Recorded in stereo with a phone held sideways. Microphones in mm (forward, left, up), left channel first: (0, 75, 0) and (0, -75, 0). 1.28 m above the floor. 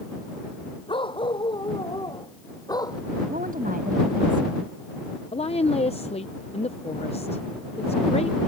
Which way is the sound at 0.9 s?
35° left (ahead or behind).